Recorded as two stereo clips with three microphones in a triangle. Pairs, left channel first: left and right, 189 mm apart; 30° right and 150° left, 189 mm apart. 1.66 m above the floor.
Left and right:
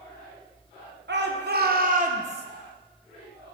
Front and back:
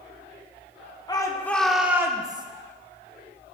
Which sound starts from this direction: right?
A shout, at 1.1 s.